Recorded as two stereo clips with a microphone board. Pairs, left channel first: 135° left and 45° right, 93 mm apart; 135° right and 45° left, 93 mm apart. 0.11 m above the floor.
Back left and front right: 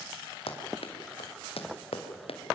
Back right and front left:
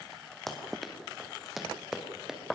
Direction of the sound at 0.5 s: 135° left.